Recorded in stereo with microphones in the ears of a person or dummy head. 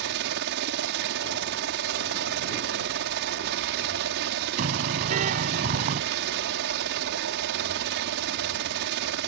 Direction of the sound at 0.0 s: 60° right (ahead or behind).